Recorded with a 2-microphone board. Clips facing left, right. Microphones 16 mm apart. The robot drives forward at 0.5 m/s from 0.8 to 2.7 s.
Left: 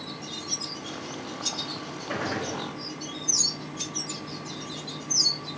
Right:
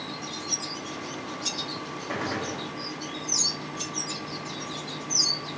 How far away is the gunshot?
About 1.5 m.